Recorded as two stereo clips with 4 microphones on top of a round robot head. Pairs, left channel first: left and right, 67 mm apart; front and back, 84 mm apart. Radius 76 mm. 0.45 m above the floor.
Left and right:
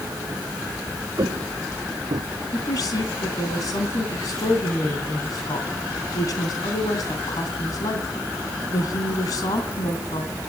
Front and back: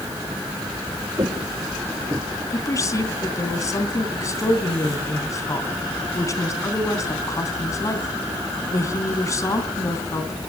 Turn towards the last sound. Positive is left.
turn(degrees=50)